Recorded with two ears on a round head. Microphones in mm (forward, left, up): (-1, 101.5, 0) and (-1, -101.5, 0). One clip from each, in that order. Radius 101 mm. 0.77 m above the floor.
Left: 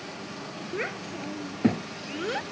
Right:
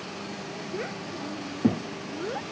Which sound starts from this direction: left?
A child speaking, at 0.7 s.